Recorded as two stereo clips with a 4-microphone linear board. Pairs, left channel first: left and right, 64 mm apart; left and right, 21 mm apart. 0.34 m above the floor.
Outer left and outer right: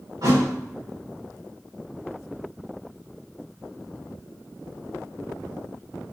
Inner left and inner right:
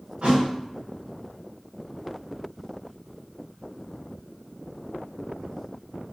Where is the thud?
85° right, 5.5 m.